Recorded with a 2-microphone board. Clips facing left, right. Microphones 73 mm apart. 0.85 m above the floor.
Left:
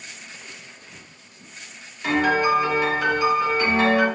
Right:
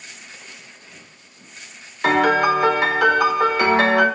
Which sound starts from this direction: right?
A piano, at 2.0 s.